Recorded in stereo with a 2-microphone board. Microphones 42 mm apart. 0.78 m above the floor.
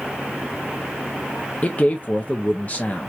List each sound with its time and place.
1.6 s a man speaking: 35° left (ahead or behind), 0.5 m